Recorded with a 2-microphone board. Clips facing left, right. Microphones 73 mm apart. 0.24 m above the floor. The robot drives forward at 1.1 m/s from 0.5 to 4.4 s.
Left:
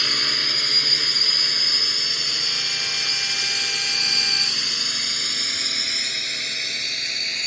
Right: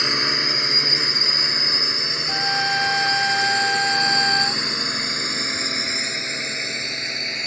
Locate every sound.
0.0 s a drone: 25° right (ahead or behind)
2.3 s a trumpet: 70° right (ahead or behind); by 4.6 s 55° right (ahead or behind)